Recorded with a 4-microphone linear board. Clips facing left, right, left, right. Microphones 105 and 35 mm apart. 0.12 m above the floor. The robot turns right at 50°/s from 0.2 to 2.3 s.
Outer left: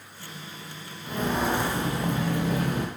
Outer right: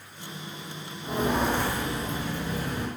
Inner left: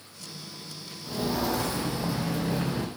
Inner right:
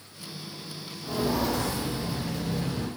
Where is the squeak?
I don't hear a squeak.